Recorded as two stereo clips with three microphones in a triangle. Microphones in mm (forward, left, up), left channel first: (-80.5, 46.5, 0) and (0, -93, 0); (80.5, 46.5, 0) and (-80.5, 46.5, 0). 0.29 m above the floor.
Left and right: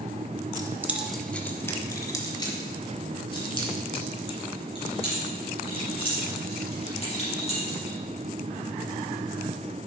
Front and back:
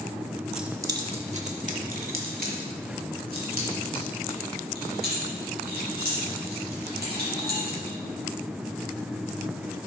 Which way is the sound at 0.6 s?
95° right.